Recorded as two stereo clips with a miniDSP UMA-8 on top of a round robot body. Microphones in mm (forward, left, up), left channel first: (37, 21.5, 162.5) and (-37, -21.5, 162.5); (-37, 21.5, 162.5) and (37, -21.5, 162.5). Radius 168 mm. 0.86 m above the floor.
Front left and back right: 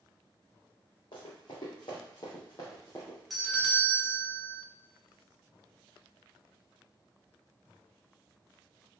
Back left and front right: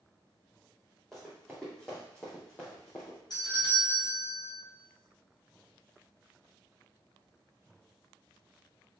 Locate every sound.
1.1 s running footsteps: 60° left, 2 m; by 3.2 s 95° left, 1.3 m
3.3 s a doorbell: 120° left, 1.4 m